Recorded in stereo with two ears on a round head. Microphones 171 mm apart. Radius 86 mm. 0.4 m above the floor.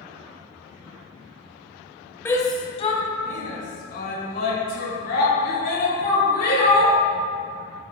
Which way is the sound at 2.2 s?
10° left (ahead or behind).